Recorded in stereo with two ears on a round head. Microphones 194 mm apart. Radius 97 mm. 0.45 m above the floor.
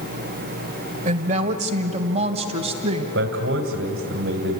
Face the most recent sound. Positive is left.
turn(degrees=-55)  # may be behind; listen again after turning